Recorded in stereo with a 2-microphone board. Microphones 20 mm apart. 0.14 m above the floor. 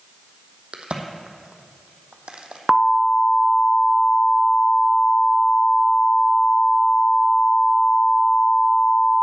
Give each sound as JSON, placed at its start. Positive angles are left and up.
{"t": 0.7, "sound": "a crack", "side_deg": -55, "distance_m": 1.2}
{"t": 2.7, "sound": "an alarm", "side_deg": -15, "distance_m": 1.0}